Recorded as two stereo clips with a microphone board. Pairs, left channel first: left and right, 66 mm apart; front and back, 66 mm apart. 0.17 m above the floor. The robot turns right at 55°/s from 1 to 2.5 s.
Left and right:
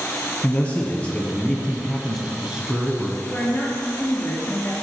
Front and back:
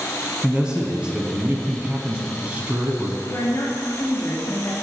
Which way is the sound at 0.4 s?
125° left.